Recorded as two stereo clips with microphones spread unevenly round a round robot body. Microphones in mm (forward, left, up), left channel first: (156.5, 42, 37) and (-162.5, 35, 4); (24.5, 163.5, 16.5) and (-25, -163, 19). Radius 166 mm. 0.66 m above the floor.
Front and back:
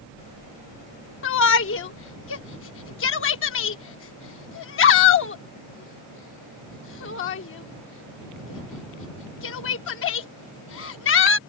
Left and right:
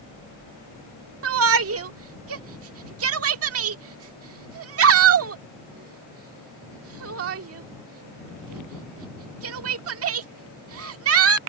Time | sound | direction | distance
1.2 | a shout | 55° right | ?